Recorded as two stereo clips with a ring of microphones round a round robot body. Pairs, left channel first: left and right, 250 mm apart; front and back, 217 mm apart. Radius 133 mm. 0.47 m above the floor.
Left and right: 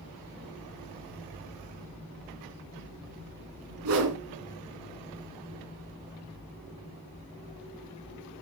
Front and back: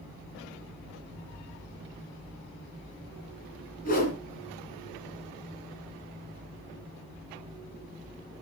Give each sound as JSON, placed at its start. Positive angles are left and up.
{"t": 3.9, "sound": "a whoosh", "azimuth_deg": -60, "distance_m": 2.5}